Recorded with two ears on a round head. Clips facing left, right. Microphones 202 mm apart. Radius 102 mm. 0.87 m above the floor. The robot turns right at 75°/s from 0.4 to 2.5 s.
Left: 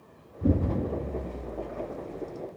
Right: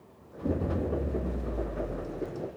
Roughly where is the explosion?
Behind left.